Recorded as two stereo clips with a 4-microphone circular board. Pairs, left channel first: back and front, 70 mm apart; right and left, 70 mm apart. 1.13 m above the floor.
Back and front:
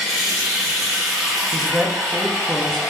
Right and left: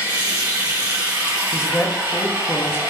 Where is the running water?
90° left, 1.5 m.